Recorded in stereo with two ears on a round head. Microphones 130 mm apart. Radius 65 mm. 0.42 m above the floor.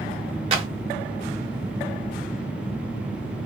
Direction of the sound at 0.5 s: 40° right (ahead or behind).